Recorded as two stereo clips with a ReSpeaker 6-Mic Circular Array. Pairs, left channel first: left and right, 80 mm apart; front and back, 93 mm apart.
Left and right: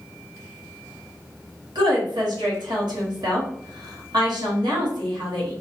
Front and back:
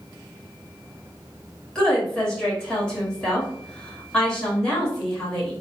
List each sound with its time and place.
1.8 s a woman speaking: 80° right, 1.2 m